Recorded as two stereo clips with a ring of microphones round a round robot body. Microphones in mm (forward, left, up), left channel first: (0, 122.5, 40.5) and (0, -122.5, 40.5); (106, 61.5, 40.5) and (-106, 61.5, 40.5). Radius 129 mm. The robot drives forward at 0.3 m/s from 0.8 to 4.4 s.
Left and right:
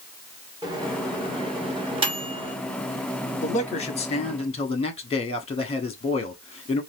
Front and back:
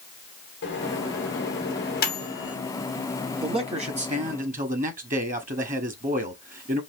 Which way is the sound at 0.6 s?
20° right.